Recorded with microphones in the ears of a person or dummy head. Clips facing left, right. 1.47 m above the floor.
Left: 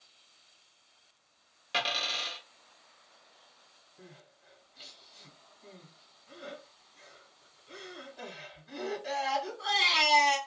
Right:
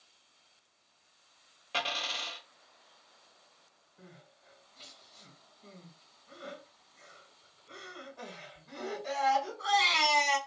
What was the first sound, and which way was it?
A dropped coin, 30° left (ahead or behind).